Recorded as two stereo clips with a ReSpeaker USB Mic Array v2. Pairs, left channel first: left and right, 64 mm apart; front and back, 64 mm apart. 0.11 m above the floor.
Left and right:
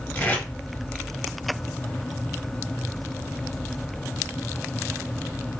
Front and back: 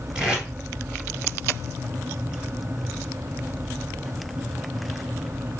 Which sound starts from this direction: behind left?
Tape being pulled, at 0.1 s.